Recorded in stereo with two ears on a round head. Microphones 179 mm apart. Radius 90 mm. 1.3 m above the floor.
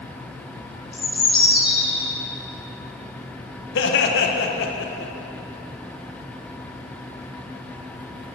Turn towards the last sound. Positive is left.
turn(degrees=65)  # may be behind; listen again after turning